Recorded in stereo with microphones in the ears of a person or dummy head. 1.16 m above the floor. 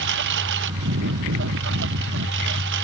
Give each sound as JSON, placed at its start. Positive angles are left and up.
{"t": 0.0, "sound": "a lawn mower", "side_deg": -60}